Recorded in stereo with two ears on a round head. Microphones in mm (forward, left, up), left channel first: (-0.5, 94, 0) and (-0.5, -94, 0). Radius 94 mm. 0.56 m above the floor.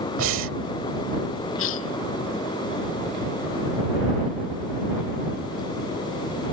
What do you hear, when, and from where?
0.2 s breathing: 75° right (ahead or behind)
1.6 s a cough: 75° left (ahead or behind)